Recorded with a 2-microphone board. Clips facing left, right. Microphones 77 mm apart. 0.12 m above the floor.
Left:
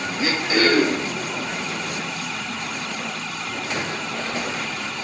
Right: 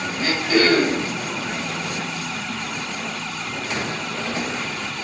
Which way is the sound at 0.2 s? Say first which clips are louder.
Right 1 dB; 10° left (ahead or behind).